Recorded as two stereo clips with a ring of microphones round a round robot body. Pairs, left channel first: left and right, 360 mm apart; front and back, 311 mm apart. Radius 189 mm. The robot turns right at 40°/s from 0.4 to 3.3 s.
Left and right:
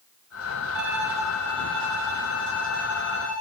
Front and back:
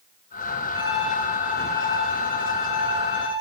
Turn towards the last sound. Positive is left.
turn(degrees=-20)